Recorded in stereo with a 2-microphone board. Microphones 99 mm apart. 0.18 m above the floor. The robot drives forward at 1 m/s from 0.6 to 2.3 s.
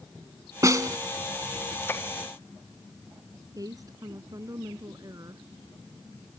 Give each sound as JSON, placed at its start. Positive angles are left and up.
{"t": 0.6, "sound": "a snare drum", "side_deg": -35}
{"t": 3.5, "sound": "a woman speaking", "side_deg": -40}